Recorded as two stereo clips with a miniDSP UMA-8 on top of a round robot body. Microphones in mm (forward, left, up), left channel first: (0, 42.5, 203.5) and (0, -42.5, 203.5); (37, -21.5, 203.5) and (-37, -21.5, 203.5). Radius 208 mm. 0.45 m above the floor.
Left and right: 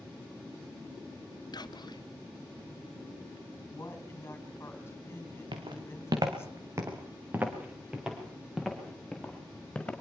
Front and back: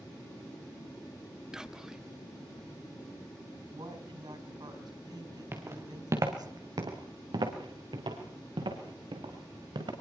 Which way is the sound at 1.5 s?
100° left.